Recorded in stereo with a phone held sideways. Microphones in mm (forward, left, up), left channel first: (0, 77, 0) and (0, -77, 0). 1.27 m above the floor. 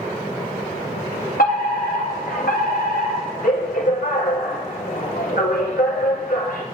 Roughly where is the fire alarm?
Left.